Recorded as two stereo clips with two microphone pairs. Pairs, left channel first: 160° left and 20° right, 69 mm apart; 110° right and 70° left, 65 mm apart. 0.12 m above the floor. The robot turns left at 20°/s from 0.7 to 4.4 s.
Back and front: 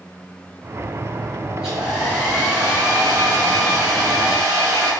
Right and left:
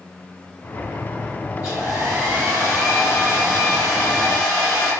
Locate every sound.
1.6 s a hair dryer: 50° left, 1.7 m; by 4.9 s 5° right, 1.7 m